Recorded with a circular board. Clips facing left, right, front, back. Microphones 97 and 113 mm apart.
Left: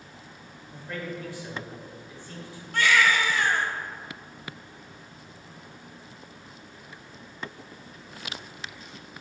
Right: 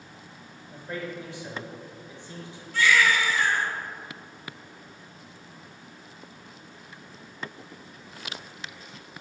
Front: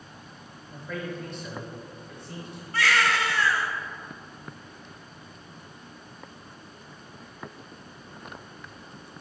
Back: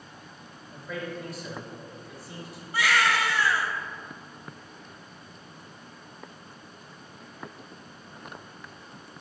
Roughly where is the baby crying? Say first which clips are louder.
Even, even; left.